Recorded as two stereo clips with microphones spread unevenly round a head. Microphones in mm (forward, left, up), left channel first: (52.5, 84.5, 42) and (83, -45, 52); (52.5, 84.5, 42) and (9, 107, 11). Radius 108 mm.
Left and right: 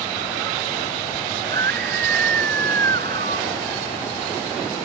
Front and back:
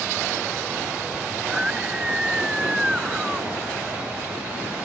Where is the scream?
120° right.